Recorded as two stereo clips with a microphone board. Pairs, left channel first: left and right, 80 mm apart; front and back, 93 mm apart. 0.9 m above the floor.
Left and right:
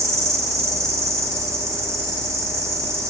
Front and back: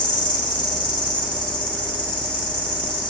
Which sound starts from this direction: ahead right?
An insect, at 0.0 s.